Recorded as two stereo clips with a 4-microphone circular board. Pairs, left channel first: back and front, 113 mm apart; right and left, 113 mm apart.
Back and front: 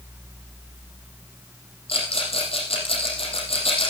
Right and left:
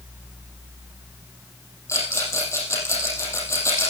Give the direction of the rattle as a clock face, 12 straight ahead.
5 o'clock.